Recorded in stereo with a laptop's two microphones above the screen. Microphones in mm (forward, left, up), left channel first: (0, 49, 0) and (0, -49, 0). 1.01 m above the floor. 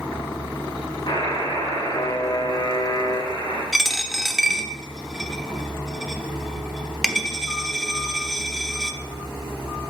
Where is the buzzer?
60° left (ahead or behind), 5.5 m.